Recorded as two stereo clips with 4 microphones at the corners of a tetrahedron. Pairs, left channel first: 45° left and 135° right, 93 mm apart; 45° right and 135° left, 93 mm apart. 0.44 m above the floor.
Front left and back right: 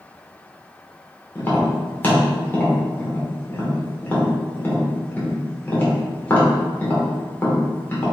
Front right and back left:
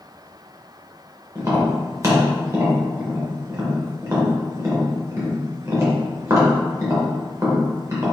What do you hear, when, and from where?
1.4 s tapping: 100° left, 1.2 m